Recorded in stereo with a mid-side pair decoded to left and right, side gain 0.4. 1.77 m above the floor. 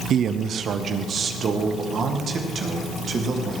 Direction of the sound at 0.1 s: 70° right.